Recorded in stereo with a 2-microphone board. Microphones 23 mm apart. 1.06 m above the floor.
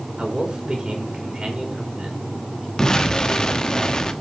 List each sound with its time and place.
0.2 s a man speaking: 40° right (ahead or behind), 3.5 m
2.8 s an explosion: 35° left (ahead or behind), 1.1 m